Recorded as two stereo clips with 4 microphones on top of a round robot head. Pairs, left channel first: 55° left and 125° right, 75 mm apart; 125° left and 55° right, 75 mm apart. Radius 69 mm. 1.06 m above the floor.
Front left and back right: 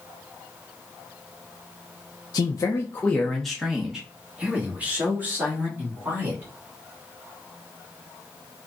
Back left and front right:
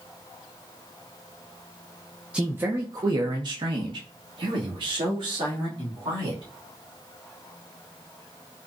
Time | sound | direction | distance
2.3 | a man speaking | 20° left | 0.6 m